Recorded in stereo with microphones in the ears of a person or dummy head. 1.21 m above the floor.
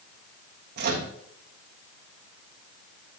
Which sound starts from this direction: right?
A microwave, at 0.8 s.